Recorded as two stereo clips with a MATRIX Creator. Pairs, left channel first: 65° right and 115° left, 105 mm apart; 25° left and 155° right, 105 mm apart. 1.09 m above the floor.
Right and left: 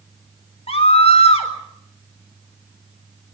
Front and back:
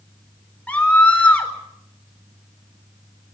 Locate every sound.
0.7 s a scream: 55° right, 4 m